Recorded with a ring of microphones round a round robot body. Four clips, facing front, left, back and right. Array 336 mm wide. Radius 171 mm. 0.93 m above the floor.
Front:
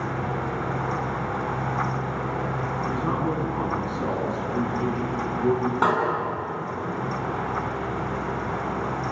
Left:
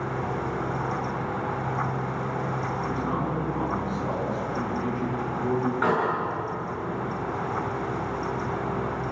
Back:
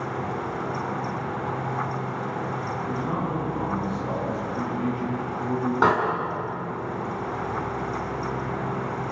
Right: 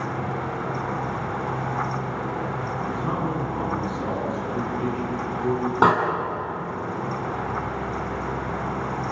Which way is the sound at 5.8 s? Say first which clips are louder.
Right 8 dB, back 2 dB; 95° right.